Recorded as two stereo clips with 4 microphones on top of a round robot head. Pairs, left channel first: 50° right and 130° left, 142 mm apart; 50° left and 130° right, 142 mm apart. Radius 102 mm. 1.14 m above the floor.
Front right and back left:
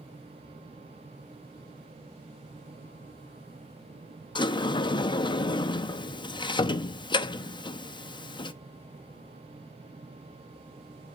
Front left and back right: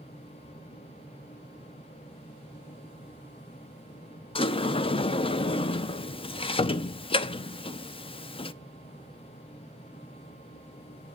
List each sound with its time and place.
4.3 s a sliding door: 5° left, 0.6 m